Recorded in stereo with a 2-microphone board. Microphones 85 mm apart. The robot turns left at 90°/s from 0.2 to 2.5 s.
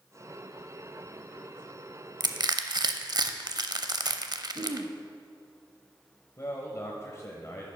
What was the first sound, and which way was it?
Crushing, 55° right (ahead or behind).